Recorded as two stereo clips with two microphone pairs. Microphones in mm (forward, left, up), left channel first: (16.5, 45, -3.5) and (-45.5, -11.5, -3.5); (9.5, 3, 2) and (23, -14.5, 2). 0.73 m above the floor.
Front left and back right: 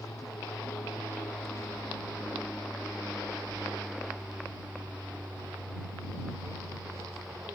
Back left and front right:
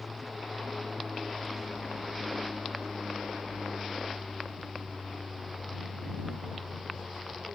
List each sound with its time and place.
0.0 s an aircraft: 30° left; by 7.6 s 90° right